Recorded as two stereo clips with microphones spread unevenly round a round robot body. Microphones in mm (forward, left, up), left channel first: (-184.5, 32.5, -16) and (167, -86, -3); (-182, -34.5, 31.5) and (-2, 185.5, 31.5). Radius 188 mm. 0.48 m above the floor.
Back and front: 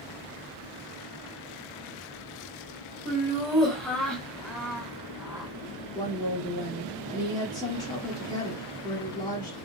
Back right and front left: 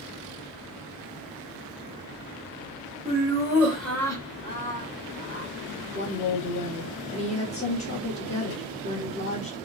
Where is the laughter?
85° left, 1.0 m; by 5.5 s 105° right, 1.3 m.